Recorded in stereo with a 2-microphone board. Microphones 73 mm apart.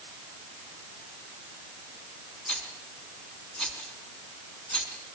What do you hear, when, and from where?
2.5 s a rattle: 20° left (ahead or behind), 3.5 m